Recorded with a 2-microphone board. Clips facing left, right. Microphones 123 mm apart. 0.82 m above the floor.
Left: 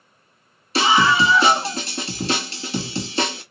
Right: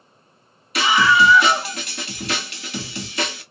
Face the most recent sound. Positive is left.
turn(degrees=30)  # may be behind; listen again after turning